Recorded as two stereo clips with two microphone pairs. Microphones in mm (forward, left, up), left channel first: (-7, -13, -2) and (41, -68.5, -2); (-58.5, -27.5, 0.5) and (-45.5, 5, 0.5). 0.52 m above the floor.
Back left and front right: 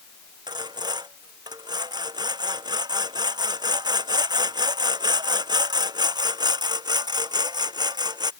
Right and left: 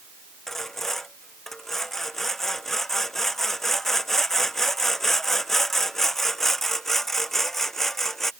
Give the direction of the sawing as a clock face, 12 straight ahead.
1 o'clock.